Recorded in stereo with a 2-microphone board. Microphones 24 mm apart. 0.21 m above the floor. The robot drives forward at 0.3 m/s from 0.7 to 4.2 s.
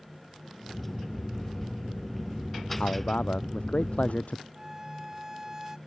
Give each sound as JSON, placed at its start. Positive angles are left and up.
{"t": 2.8, "sound": "a man speaking", "side_deg": 70}
{"t": 4.5, "sound": "a violin", "side_deg": -20}